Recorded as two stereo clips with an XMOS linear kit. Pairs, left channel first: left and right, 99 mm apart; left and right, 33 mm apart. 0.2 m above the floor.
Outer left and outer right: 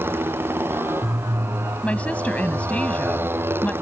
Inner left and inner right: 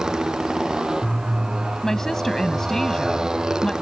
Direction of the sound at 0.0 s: 20° right (ahead or behind).